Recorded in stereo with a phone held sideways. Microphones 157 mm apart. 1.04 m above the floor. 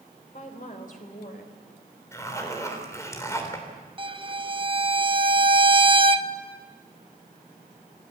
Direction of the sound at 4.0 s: 35° right (ahead or behind).